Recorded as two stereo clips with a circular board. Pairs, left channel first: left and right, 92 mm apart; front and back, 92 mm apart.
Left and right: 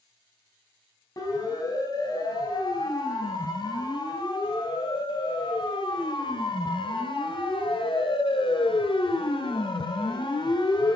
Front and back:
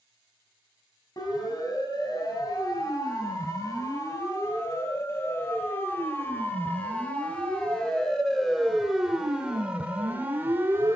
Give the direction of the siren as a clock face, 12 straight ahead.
11 o'clock.